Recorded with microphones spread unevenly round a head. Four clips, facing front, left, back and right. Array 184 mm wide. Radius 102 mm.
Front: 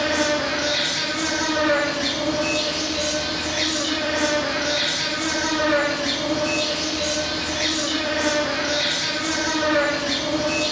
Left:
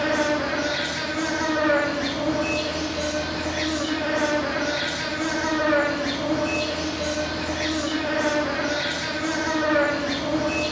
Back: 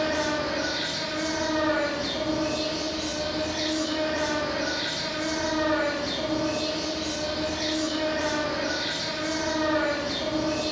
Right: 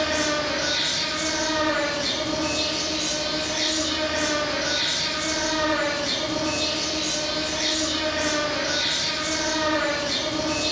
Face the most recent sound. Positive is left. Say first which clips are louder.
# left 2 dB, front 4 dB
turn(degrees=40)